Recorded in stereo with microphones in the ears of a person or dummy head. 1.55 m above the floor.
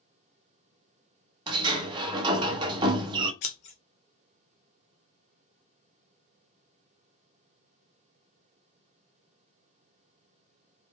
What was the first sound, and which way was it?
A sliding door, 25° right (ahead or behind).